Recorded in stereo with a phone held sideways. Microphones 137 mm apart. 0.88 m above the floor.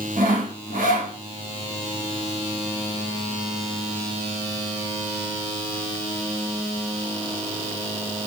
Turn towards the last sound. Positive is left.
turn(degrees=-80)